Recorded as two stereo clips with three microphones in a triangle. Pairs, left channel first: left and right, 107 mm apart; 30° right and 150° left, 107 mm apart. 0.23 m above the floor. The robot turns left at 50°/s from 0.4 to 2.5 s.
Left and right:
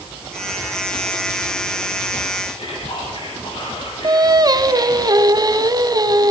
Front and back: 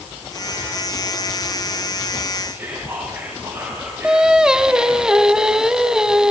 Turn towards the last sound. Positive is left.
turn(degrees=-125)